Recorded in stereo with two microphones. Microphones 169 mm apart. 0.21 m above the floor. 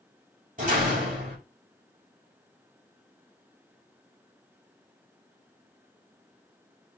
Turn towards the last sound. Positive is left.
turn(degrees=-45)  # may be behind; listen again after turning